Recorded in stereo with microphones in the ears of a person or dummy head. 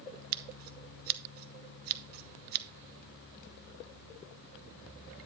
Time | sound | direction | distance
0.3 | scissors | 50° right (ahead or behind) | 0.7 m